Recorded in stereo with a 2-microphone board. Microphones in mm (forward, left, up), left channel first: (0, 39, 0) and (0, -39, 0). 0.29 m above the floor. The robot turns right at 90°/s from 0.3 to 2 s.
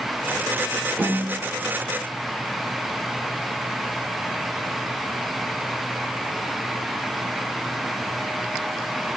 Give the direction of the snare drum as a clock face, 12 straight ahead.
10 o'clock.